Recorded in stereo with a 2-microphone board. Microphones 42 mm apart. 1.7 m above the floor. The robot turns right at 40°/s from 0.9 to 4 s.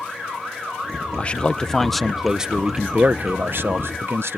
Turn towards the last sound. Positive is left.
turn(degrees=-105)